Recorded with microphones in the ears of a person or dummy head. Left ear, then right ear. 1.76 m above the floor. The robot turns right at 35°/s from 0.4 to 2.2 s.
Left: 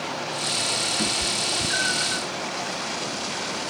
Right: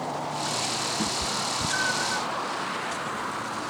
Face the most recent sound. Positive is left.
turn(degrees=-15)  # may be behind; listen again after turning